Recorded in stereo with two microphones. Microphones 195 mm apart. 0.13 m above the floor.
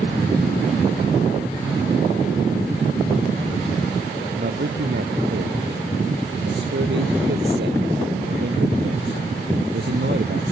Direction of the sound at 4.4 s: 65° right (ahead or behind).